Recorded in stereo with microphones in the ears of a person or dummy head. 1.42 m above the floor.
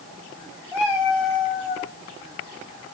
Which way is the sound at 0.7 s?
Centre (ahead or behind).